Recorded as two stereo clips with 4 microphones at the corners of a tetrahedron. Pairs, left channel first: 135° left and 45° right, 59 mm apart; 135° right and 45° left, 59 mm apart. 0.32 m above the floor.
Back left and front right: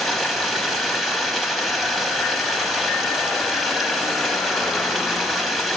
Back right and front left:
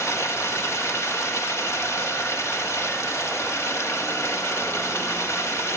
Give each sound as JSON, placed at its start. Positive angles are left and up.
{"t": 0.0, "sound": "running water", "azimuth_deg": -135, "distance_m": 1.1}